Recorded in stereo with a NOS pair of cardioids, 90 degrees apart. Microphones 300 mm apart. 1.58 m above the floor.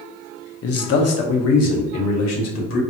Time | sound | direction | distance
0.6 | a man speaking | 50° left | 1.0 m